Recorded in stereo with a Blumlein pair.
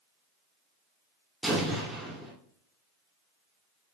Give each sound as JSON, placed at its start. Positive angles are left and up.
{"t": 1.4, "sound": "an explosion", "azimuth_deg": -15, "distance_m": 2.5}